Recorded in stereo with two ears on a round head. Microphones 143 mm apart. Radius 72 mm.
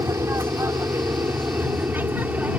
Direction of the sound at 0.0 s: 20° right (ahead or behind).